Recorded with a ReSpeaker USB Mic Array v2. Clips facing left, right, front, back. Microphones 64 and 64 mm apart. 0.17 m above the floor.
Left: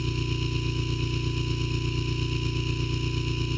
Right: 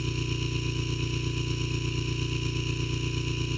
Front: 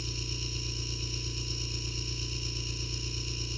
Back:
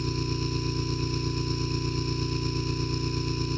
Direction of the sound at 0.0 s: Straight behind.